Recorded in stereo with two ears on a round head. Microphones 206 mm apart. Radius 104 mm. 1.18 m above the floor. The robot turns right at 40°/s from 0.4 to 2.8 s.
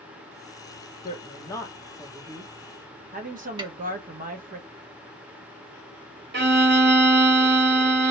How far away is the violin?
About 1.3 m.